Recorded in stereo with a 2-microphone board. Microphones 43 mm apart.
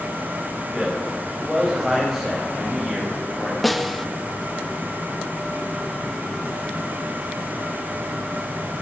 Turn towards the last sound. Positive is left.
turn(degrees=0)  # may be behind; listen again after turning